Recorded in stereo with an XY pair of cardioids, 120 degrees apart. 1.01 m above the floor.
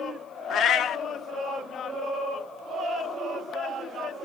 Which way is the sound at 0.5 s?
60° left.